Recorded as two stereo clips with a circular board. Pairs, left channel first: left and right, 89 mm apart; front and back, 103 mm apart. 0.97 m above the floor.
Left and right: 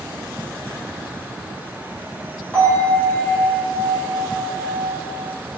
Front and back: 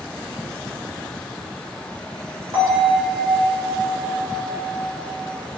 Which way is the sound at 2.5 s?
160° left.